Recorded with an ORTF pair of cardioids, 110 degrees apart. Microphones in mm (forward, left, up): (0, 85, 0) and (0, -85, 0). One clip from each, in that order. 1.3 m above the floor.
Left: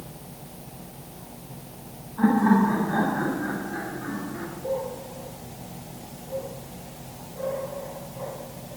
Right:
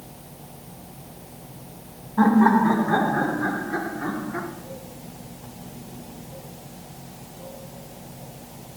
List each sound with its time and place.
2.2 s laughter: 65° right, 5 m